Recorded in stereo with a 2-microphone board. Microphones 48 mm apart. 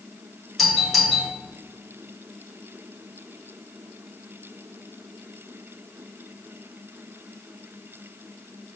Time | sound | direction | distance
0.6 | a doorbell | 5° left (ahead or behind) | 2.0 m